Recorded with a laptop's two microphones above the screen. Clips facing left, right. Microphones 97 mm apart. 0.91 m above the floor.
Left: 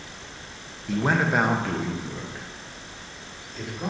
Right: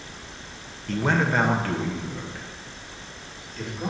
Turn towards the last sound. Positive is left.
turn(degrees=10)  # may be behind; listen again after turning